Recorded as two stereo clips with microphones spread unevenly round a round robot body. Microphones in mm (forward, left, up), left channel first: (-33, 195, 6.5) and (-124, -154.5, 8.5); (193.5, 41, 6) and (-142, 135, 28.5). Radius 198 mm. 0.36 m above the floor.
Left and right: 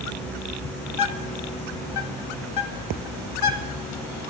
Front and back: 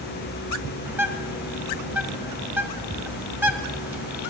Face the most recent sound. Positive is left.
turn(degrees=80)